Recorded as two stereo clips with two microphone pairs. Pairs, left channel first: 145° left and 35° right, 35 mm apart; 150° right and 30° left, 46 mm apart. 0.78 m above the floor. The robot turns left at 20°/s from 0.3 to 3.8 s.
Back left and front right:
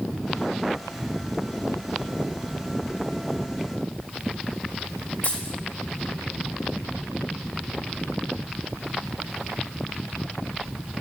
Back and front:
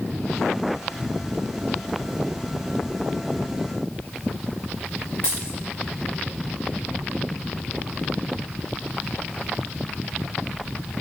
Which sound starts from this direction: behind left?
A dropped coin, at 5.2 s.